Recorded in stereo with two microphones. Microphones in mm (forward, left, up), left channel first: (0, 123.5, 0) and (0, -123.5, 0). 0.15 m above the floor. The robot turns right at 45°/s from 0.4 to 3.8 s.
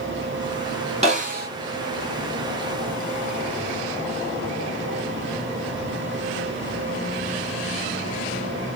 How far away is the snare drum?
About 2 m.